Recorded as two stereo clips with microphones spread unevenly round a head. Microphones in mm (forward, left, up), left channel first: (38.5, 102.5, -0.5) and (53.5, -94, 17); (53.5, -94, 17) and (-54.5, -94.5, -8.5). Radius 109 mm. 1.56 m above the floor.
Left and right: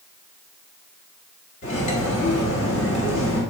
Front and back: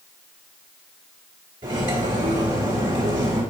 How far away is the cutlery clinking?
About 1.6 m.